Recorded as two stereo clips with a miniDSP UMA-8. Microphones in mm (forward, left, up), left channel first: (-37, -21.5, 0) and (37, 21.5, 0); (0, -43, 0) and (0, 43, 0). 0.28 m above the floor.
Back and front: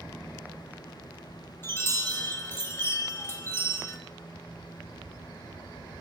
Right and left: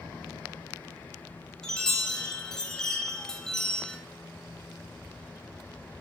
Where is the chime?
165° right, 0.6 m.